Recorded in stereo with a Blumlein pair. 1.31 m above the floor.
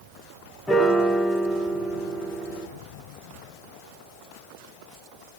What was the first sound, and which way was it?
A piano, 5° left.